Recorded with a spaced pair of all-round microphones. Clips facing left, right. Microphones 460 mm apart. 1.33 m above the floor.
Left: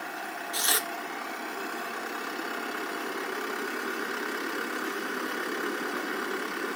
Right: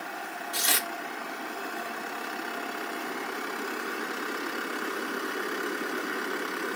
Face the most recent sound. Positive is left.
turn(degrees=-50)  # may be behind; listen again after turning